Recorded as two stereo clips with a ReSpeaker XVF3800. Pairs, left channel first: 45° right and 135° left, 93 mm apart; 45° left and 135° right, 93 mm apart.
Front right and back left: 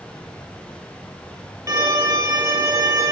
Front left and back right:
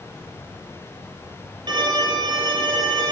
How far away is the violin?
About 3.5 m.